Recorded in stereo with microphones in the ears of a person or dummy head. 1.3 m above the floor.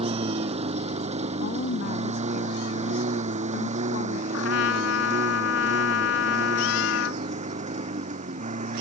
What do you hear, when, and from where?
0.0 s a lawn mower: 25° right (ahead or behind); by 8.8 s 35° right (ahead or behind)
1.4 s a woman speaking: 65° left (ahead or behind)
4.3 s a trumpet: 80° left